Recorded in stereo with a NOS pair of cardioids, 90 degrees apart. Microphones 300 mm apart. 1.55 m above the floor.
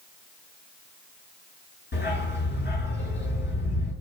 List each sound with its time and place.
1.9 s a dog barking: 35° left, 7.5 m